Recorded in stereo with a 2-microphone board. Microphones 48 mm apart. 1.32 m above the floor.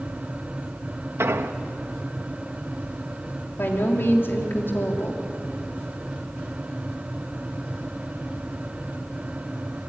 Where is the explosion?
65° right (ahead or behind), 1.1 m.